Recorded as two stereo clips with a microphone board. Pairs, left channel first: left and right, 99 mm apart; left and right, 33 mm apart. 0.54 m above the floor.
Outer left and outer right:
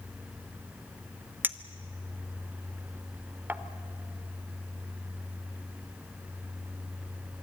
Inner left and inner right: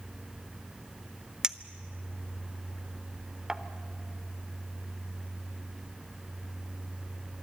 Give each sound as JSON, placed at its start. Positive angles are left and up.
{"t": 1.4, "sound": "a clink", "side_deg": -20, "distance_m": 0.9}